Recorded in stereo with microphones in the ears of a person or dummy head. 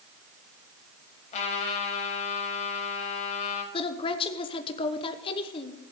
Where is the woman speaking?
25° left (ahead or behind), 1.0 m.